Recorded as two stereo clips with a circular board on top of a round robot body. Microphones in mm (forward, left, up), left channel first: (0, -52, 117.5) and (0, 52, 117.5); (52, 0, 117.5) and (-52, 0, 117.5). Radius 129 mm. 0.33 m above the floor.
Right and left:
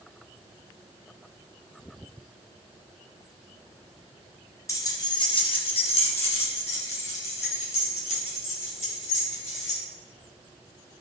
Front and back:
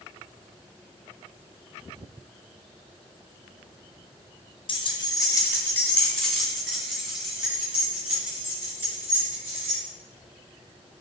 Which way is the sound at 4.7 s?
30° right.